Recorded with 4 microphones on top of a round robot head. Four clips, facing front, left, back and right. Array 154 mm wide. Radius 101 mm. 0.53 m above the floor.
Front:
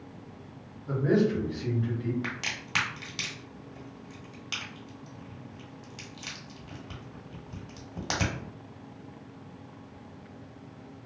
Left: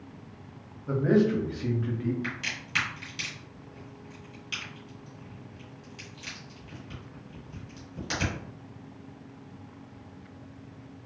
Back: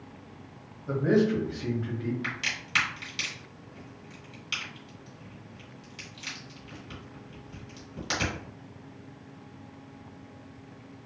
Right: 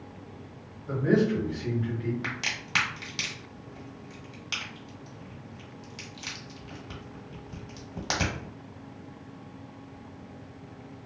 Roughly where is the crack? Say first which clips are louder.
Right 1 dB, even; ahead right.